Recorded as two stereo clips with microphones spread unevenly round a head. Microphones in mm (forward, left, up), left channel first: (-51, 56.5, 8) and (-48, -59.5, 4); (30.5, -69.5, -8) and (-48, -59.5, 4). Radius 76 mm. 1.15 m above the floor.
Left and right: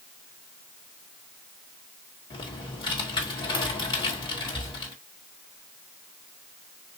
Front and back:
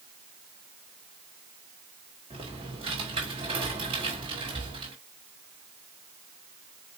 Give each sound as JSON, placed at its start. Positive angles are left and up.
{"t": 2.3, "sound": "typing on a keyboard", "azimuth_deg": 140, "distance_m": 2.5}